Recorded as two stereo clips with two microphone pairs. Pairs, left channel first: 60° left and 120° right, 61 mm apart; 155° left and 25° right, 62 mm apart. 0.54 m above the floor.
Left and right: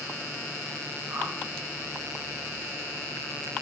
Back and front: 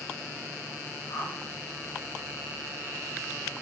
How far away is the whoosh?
About 0.5 m.